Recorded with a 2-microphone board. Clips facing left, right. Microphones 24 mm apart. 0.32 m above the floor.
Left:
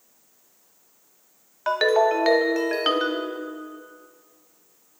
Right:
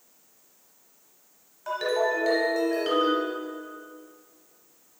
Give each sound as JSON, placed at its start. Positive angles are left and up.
{"t": 1.7, "sound": "a ringtone", "side_deg": 55, "distance_m": 0.8}